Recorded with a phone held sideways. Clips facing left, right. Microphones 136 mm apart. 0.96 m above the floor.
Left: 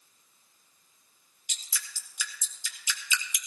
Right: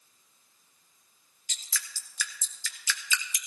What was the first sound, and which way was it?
Dripping, 15° left (ahead or behind).